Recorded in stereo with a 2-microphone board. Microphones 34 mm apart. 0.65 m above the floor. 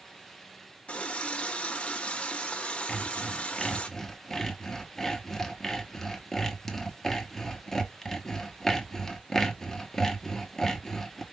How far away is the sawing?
About 1.0 m.